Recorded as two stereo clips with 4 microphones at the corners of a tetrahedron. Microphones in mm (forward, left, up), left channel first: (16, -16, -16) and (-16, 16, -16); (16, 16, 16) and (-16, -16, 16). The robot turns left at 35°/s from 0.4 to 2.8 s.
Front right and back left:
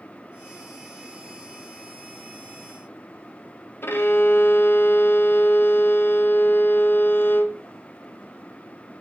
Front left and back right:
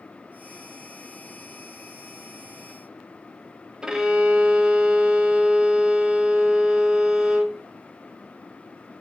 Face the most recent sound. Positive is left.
turn(degrees=-65)